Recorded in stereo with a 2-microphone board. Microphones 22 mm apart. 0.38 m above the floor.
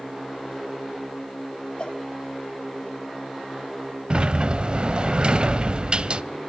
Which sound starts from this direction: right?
A sliding door, at 4.1 s.